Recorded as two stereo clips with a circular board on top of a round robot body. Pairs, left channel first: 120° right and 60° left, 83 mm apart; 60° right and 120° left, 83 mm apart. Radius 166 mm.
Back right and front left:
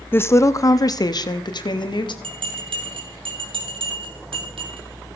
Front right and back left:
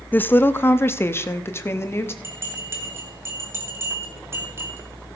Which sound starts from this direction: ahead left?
A bell, at 2.2 s.